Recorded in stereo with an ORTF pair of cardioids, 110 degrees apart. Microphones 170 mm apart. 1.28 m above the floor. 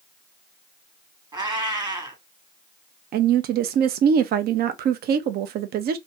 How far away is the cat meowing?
About 1.5 m.